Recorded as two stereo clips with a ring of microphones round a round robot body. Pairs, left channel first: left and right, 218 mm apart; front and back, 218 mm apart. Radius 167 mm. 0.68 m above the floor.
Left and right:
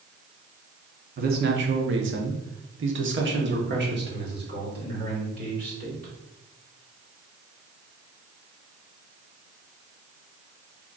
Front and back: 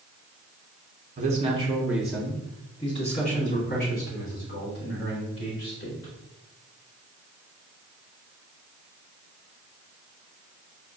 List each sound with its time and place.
1.2 s a man speaking: 130° right, 0.8 m; by 6.1 s 45° right, 2.5 m